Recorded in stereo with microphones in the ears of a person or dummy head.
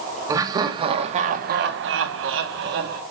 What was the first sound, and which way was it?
Laughter, 20° right (ahead or behind).